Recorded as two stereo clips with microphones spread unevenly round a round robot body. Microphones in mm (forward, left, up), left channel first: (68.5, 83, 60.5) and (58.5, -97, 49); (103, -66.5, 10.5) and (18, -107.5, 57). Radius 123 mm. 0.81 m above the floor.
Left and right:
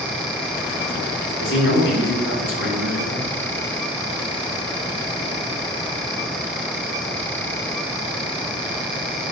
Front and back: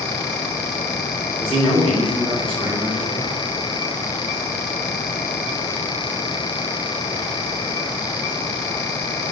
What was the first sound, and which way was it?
A man speaking, 100° left.